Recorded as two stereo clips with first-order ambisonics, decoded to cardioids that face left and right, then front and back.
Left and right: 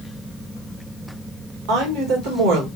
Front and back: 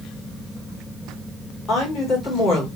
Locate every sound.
1.7 s a woman speaking: 65° right, 1.9 m